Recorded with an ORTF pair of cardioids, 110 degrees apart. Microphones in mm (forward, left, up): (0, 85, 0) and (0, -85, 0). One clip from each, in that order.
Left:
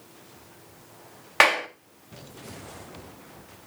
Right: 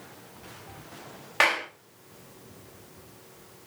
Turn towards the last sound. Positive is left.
turn(degrees=35)